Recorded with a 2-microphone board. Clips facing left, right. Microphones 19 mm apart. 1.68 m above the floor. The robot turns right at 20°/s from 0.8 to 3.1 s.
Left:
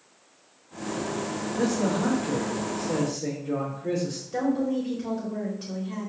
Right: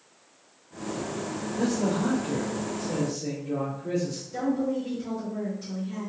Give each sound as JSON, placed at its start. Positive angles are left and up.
{"t": 1.6, "sound": "a man speaking", "azimuth_deg": 40, "distance_m": 1.5}
{"t": 4.3, "sound": "a woman speaking", "side_deg": 55, "distance_m": 1.2}